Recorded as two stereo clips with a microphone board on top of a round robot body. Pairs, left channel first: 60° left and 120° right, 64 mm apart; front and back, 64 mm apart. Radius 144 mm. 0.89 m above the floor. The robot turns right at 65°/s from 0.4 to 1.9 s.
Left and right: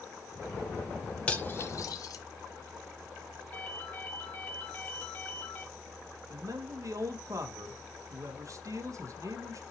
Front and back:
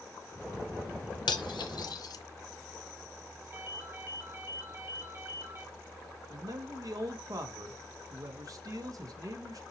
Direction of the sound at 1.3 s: 15° right.